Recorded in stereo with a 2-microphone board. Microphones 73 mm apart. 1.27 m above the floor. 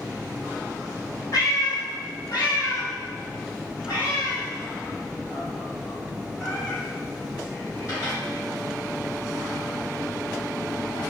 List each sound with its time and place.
1.3 s a cat meowing: 55° left (ahead or behind), 1.0 m; by 8.2 s 40° left (ahead or behind), 3.5 m